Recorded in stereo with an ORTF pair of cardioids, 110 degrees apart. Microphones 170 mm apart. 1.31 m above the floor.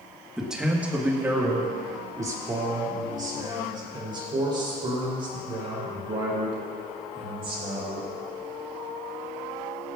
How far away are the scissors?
I don't hear scissors.